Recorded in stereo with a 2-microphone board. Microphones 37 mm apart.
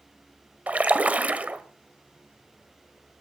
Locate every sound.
0.7 s a splash: 40° right (ahead or behind), 1.4 m